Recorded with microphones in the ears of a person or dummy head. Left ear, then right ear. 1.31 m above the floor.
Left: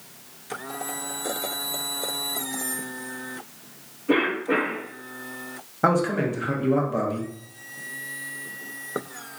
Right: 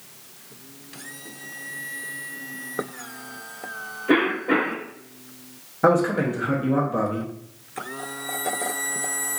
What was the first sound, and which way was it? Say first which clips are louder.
A cough: right 2 dB; 45° right (ahead or behind).